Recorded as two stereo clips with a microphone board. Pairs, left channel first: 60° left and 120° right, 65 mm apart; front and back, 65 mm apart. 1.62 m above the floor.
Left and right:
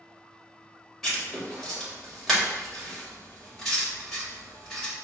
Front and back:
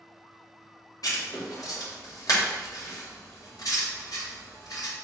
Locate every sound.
1.0 s writing: 25° right, 1.6 m